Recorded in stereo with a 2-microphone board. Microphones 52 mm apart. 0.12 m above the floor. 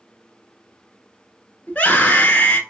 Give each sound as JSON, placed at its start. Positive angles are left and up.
{"t": 1.7, "sound": "a scream", "side_deg": 25, "distance_m": 1.2}